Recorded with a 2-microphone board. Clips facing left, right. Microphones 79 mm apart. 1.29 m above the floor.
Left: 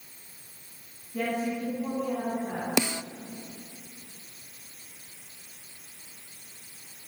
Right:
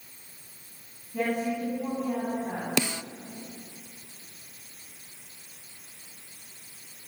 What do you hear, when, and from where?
1.1 s a woman speaking: 20° right (ahead or behind), 10 m
2.8 s a snare drum: 15° left (ahead or behind), 0.6 m